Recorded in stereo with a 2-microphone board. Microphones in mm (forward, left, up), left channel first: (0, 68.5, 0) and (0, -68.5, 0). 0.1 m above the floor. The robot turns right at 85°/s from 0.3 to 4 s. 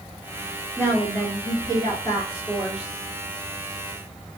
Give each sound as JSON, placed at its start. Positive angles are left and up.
{"t": 0.8, "sound": "a woman speaking", "azimuth_deg": 15, "distance_m": 1.3}